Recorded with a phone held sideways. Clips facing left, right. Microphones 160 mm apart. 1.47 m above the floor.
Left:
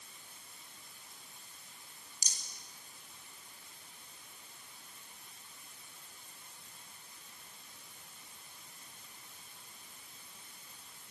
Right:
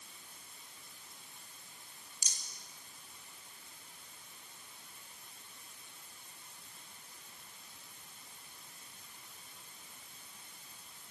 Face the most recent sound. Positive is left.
turn(degrees=35)  # may be behind; listen again after turning